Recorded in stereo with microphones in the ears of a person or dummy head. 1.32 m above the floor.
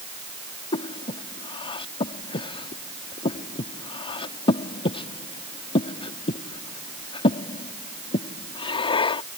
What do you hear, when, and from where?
0.7 s breathing: 30° left (ahead or behind)